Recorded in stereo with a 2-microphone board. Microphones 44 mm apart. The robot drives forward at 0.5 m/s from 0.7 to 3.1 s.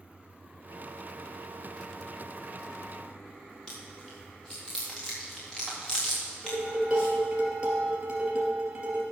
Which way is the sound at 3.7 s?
15° left (ahead or behind).